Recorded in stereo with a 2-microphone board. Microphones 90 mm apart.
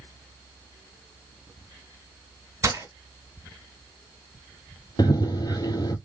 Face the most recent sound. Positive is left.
turn(degrees=50)  # may be behind; listen again after turning